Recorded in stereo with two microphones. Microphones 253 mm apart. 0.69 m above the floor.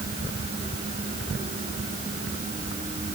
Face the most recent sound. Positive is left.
No sound to turn to.